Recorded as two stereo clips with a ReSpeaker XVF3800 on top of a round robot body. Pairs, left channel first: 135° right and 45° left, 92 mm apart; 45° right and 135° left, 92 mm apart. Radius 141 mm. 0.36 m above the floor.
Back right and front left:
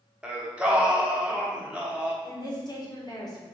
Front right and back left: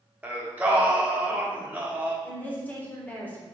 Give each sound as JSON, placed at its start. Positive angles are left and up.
{"t": 0.2, "sound": "singing", "azimuth_deg": 100, "distance_m": 1.1}
{"t": 2.2, "sound": "a woman speaking", "azimuth_deg": -110, "distance_m": 1.8}